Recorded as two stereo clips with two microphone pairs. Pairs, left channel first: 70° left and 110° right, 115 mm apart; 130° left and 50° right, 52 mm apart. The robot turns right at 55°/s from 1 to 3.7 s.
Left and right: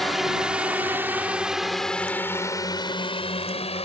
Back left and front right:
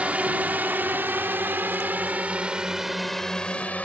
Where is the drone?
20° right; by 3.9 s 75° left.